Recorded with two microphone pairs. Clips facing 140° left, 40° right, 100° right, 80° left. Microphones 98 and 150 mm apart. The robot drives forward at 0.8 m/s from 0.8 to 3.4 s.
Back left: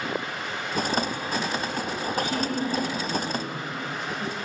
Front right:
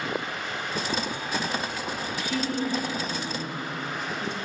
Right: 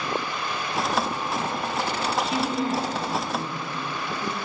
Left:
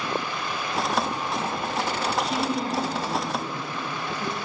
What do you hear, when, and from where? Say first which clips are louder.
2.2 s a woman speaking: back left 1 dB, right 1 dB; 85° left, 1.9 m; by 4.3 s 125° left, 2 m